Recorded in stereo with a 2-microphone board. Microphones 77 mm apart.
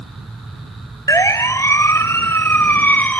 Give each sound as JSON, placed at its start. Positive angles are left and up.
{"t": 1.1, "sound": "a siren", "side_deg": 45}